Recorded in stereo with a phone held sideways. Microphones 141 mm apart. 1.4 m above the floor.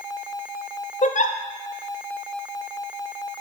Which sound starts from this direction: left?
A giggle, at 1.0 s.